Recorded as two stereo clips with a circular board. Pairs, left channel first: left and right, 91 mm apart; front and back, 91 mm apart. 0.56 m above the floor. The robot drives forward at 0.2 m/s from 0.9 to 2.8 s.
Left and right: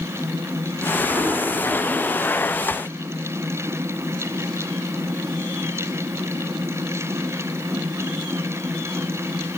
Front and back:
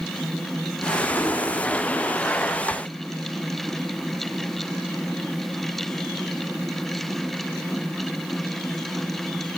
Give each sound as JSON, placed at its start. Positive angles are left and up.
{"t": 1.0, "sound": "an explosion", "azimuth_deg": -50, "distance_m": 0.9}